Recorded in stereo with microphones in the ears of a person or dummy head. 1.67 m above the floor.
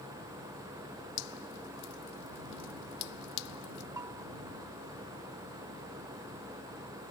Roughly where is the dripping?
Left.